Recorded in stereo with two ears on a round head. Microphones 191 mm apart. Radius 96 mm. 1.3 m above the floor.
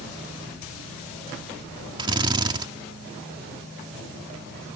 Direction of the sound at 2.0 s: 25° right (ahead or behind).